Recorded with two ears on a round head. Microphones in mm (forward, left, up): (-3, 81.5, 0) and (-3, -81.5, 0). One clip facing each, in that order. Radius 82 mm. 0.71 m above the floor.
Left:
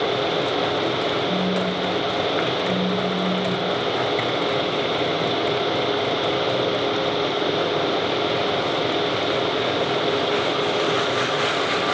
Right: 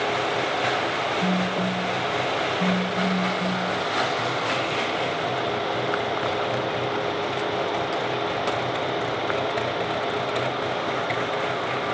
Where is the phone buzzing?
85° right, 6 m.